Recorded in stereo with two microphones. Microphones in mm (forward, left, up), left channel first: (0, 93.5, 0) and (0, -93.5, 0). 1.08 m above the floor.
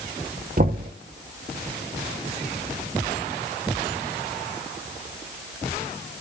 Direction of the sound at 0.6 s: 50° right (ahead or behind).